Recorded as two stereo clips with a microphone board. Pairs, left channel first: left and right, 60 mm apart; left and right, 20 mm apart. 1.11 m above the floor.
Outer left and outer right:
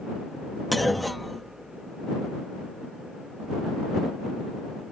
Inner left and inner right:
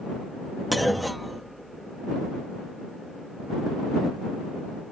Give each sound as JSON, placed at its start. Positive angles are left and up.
{"t": 0.7, "sound": "a clunk", "side_deg": 0}